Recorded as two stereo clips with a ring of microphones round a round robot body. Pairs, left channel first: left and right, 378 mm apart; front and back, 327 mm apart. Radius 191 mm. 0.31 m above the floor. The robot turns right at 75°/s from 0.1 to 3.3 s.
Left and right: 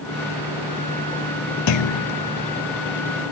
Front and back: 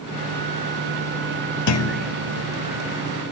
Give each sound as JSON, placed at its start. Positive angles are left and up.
{"t": 1.7, "sound": "a clunk", "azimuth_deg": 40, "distance_m": 0.8}